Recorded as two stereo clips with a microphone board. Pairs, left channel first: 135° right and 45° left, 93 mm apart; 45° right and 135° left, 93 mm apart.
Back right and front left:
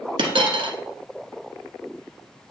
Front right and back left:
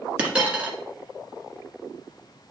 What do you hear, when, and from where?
0.2 s a dropped coin: 60° left, 1.4 m